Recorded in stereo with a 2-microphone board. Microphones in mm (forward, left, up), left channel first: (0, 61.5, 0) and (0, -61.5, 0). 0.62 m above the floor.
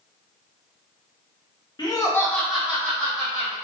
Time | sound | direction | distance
1.8 | laughter | 35° left (ahead or behind) | 0.7 m